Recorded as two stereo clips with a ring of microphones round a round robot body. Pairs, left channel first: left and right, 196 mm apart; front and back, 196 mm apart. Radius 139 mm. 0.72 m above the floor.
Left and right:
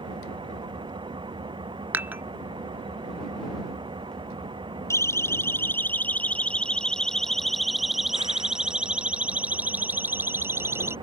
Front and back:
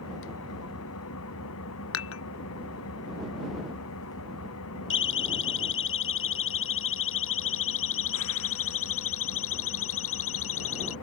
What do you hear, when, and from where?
0.0 s an engine running: 25° right
1.9 s dishes clattering: 10° right
4.9 s a siren: 15° left; by 10.9 s 15° right